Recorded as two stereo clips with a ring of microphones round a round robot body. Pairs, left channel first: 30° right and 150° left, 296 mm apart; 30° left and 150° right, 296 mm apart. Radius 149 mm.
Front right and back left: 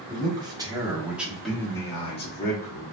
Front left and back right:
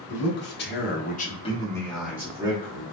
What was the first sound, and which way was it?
A man speaking, 80° left.